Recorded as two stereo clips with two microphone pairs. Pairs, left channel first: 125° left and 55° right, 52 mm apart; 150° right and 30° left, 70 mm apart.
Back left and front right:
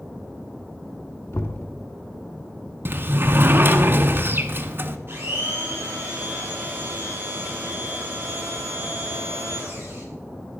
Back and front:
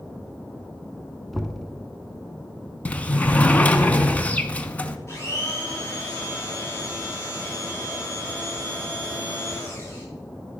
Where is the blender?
100° right, 8 m.